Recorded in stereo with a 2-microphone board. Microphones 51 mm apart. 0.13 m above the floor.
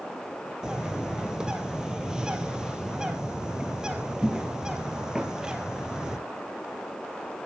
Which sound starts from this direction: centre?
A bird, at 0.6 s.